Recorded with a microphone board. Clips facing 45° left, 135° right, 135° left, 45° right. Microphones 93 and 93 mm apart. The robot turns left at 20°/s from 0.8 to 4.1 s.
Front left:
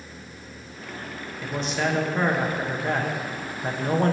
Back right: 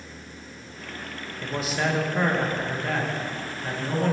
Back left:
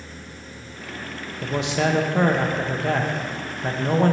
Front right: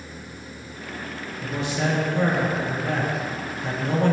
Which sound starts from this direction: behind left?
A man speaking, at 1.4 s.